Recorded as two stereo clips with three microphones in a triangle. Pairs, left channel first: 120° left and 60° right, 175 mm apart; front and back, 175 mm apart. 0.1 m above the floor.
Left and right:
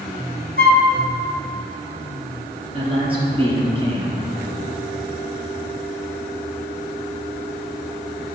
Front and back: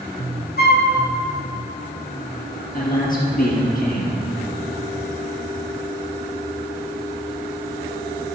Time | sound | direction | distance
0.6 | a flute | 30° right | 1.3 m
2.7 | a man speaking | 10° right | 2.5 m